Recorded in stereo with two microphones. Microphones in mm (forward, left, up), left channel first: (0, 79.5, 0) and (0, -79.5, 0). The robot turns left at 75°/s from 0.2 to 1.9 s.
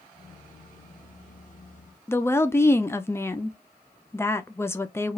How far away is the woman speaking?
About 0.5 m.